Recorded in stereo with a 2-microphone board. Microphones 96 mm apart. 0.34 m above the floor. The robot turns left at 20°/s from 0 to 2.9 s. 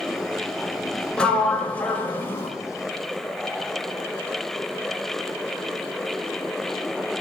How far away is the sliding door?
About 0.9 m.